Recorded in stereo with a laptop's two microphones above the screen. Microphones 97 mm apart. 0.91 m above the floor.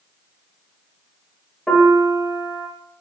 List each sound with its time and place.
1.7 s a piano: 5° left (ahead or behind), 0.7 m